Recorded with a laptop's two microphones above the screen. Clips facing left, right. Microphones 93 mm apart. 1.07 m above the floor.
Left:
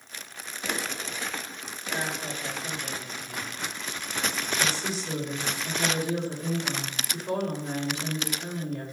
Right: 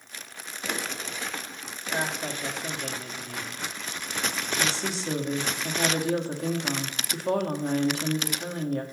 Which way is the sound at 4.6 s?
70° right (ahead or behind).